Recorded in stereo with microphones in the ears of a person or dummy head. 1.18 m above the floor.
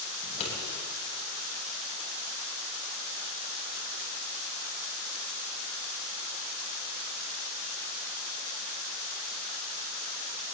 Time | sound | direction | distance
0.2 | scissors | 45° left (ahead or behind) | 8 m